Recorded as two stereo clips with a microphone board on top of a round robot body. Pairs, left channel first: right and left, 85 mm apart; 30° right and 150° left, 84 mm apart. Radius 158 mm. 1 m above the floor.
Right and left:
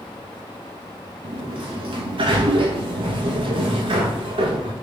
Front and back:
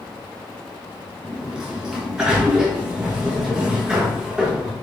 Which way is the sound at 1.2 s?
70° left.